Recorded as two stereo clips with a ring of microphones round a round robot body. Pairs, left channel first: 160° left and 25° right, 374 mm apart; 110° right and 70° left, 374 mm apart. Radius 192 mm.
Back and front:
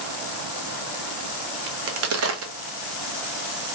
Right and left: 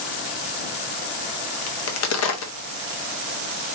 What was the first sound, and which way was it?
A crack, 70° right.